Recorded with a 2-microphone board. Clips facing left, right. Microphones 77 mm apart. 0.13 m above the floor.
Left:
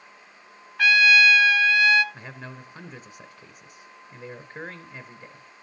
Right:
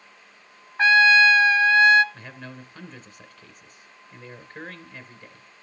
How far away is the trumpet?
About 0.7 m.